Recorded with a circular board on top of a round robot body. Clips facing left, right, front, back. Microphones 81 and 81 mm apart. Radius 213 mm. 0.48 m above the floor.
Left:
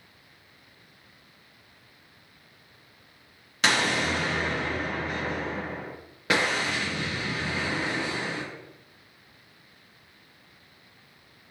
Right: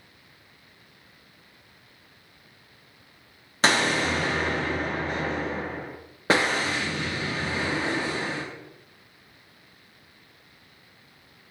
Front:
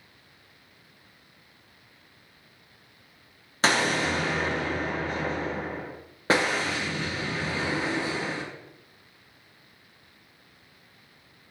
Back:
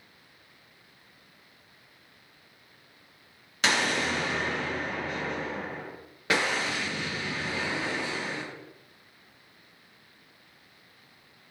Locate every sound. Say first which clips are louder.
3.6 s an explosion: right 2 dB, front 3 dB; 45° right, 1.4 m